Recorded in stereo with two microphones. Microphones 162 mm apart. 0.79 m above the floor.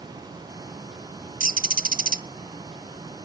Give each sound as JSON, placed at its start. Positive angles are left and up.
{"t": 1.4, "sound": "a bird", "side_deg": -60, "distance_m": 0.6}